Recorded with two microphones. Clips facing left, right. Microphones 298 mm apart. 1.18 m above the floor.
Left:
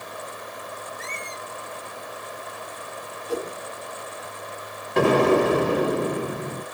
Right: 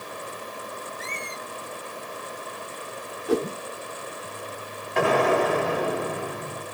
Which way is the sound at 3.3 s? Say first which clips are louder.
Right 5 dB; 75° right (ahead or behind).